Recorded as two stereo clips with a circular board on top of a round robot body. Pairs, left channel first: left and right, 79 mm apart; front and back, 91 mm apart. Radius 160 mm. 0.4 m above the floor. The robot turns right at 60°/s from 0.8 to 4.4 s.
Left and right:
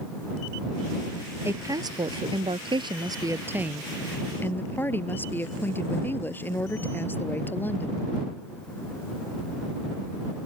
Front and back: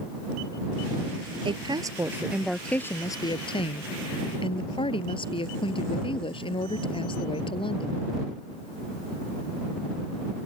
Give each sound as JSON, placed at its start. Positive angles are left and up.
{"t": 1.4, "sound": "a woman speaking", "azimuth_deg": -155}